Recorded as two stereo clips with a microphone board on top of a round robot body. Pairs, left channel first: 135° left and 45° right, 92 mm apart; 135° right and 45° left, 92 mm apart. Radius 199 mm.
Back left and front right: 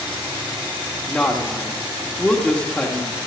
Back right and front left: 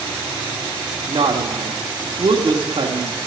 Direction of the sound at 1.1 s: 60° left.